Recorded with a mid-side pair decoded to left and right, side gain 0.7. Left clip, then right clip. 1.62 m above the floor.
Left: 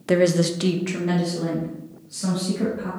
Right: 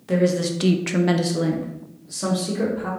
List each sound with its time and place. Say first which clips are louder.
0.1 s a woman speaking: left 2 dB; 45° left, 0.7 m; by 2.9 s 75° right, 2 m